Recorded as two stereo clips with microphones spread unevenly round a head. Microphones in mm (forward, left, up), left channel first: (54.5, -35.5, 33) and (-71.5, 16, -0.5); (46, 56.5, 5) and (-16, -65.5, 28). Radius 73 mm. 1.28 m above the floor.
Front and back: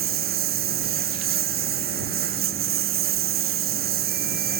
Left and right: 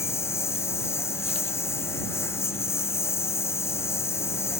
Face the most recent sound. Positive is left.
turn(degrees=135)